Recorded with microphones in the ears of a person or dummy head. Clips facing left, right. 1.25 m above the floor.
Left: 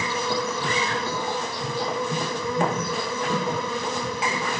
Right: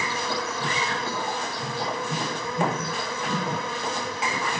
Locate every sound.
0.0 s an insect: 85° left, 0.8 m